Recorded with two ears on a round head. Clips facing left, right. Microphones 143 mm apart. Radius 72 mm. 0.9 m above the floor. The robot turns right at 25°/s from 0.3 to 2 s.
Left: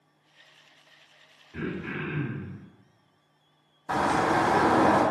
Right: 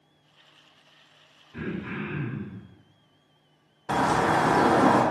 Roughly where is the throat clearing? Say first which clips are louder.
Even; left.